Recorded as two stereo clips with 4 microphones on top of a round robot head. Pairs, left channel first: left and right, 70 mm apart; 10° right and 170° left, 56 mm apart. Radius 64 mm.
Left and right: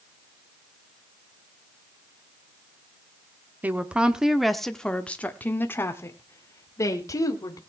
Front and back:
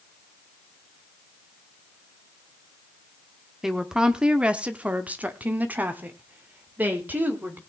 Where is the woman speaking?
115° right, 1.2 m; by 7.6 s 115° left, 2 m.